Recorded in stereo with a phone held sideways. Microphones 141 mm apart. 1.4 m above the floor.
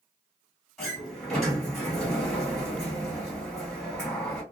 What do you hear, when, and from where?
0.8 s a sliding door: 5° left (ahead or behind), 1.8 m